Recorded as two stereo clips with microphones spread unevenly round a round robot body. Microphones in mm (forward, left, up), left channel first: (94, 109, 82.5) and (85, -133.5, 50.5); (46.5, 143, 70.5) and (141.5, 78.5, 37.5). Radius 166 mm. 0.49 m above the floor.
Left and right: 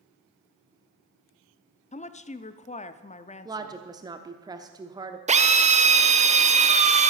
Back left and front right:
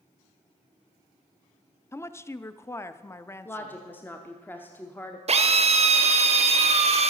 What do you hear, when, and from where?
1.9 s a woman speaking: 70° left, 0.7 m
3.5 s a woman speaking: 125° right, 0.8 m
5.3 s a drill: 30° right, 1.1 m